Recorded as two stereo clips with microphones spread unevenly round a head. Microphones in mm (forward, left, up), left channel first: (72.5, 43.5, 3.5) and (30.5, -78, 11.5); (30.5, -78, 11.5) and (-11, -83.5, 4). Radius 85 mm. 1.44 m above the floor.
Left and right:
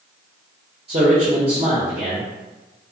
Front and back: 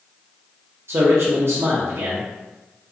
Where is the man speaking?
160° right, 0.5 m.